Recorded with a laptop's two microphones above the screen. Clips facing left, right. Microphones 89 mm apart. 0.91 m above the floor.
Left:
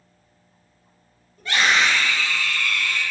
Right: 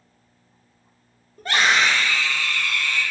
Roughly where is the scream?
Right.